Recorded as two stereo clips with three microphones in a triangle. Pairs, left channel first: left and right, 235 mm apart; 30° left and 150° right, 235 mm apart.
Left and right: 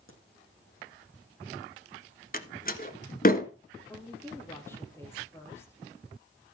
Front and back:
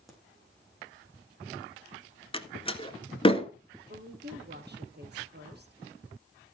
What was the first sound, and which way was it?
A crack, 120° left.